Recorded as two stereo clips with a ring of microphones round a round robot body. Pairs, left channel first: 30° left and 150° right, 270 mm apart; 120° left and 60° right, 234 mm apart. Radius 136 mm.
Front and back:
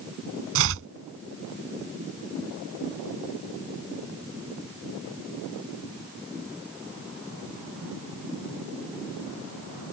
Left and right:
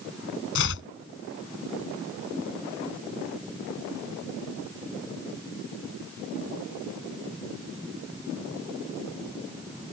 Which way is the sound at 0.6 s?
170° left.